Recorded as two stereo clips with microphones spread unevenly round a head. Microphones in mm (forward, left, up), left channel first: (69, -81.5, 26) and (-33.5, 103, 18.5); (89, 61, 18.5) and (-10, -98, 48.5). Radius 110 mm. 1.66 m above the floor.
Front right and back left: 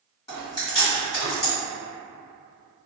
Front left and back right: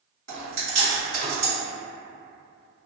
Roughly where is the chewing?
Behind right.